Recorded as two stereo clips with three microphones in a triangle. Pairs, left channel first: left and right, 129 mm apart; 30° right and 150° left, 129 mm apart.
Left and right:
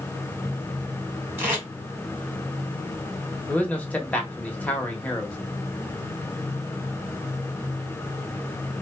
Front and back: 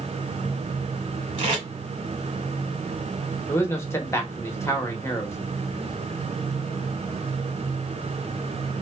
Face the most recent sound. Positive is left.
turn(degrees=20)